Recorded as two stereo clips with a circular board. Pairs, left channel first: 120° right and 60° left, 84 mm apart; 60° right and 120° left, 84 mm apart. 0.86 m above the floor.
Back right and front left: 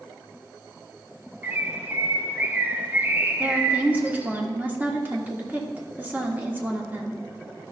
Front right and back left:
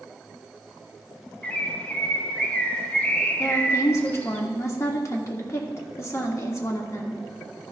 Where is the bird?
5° left, 0.8 m.